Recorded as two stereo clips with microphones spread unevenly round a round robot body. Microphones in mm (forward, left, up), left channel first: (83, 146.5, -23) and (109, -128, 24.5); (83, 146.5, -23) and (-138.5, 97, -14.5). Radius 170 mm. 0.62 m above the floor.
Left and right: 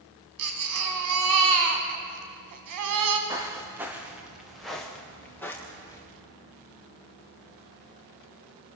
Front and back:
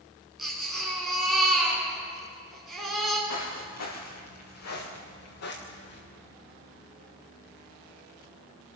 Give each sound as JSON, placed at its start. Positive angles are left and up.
{"t": 0.4, "sound": "a baby crying", "azimuth_deg": -80, "distance_m": 3.0}
{"t": 3.3, "sound": "footsteps", "azimuth_deg": -5, "distance_m": 5.0}